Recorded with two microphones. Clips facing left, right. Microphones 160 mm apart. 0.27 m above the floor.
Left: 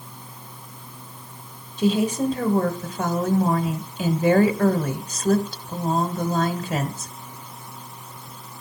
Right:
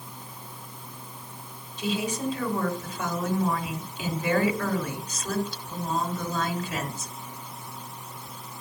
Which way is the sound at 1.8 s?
50° left (ahead or behind).